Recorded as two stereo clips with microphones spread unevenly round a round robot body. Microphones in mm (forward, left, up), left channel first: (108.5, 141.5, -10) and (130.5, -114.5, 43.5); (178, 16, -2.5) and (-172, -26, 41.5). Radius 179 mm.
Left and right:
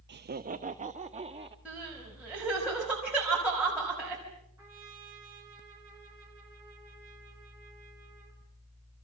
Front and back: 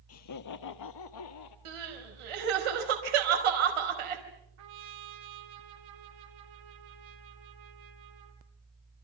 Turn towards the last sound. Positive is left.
turn(degrees=-170)